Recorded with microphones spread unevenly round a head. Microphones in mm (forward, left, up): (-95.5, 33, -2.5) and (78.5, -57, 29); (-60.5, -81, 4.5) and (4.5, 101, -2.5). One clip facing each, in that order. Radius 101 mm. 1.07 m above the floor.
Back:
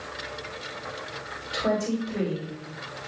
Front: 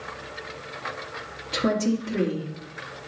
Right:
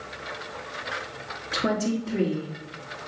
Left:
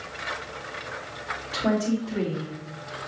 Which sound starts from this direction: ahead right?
A woman speaking, at 1.5 s.